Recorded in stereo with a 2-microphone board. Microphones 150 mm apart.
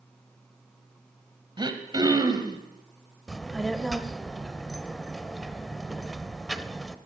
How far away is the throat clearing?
About 1.3 m.